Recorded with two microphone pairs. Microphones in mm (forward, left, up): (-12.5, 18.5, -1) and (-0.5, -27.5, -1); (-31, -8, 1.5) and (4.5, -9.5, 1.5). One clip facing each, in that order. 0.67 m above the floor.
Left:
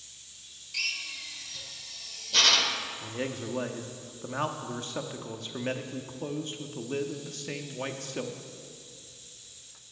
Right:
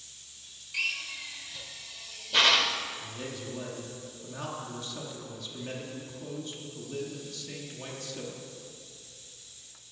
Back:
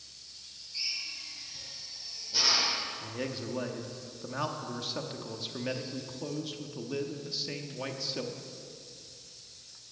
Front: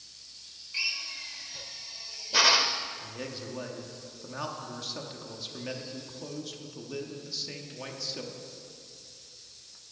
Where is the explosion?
No explosion in this recording.